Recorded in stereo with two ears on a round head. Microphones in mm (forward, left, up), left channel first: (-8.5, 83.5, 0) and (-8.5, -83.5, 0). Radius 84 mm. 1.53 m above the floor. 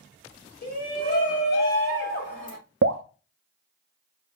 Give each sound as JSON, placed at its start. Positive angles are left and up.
{"t": 0.6, "sound": "a shout", "side_deg": 50, "distance_m": 3.5}
{"t": 2.8, "sound": "dripping", "side_deg": -65, "distance_m": 0.5}